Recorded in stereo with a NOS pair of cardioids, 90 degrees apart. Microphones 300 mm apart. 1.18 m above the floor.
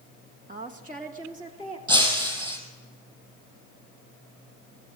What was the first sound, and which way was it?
A woman speaking, 30° right.